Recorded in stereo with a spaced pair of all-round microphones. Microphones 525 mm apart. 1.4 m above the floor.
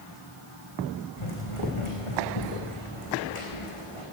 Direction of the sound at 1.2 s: 65° left (ahead or behind).